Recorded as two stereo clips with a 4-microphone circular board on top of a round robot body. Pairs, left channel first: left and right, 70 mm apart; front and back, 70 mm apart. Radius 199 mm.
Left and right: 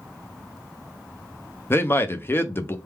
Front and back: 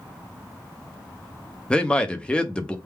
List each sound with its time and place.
1.7 s a man speaking: 65° left, 0.9 m